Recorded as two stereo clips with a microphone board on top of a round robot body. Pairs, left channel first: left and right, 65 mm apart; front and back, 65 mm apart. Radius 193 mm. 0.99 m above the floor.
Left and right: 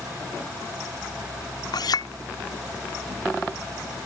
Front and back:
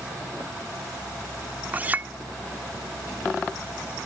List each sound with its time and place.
1.7 s a clink: 110° left